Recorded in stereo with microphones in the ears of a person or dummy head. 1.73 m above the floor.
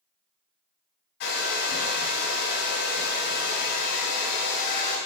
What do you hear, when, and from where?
1.2 s a hair dryer: 55° left (ahead or behind), 2.5 m